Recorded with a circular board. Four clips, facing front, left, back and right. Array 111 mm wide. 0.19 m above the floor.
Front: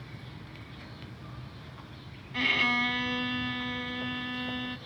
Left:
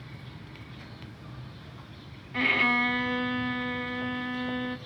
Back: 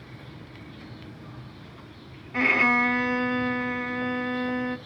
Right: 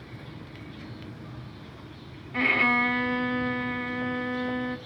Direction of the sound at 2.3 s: 165° right.